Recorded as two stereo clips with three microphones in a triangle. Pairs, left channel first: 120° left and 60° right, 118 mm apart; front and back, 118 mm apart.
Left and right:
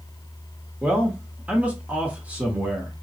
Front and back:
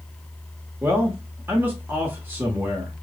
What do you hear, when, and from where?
0.8 s a man speaking: 125° right, 0.8 m